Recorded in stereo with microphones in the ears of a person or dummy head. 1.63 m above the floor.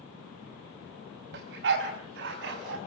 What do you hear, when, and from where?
1.3 s a dog barking: 70° right (ahead or behind), 5 m; by 2.8 s 75° right (ahead or behind), 6.5 m